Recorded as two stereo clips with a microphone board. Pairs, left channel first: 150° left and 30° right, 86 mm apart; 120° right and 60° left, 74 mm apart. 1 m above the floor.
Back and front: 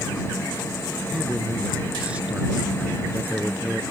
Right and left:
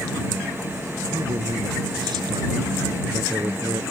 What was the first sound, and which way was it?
A man speaking, 45° left.